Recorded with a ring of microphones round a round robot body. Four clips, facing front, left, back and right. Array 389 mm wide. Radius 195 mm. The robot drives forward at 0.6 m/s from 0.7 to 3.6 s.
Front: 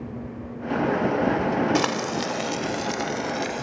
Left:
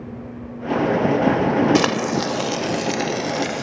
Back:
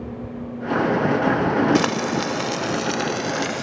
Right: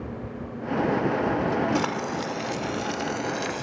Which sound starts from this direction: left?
Frying, at 1.8 s.